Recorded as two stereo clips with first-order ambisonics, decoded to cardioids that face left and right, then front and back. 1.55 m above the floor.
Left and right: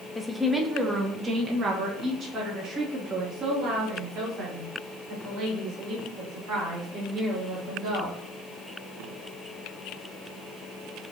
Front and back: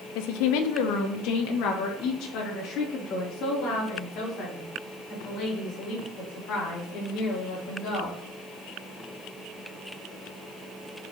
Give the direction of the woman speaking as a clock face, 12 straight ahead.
12 o'clock.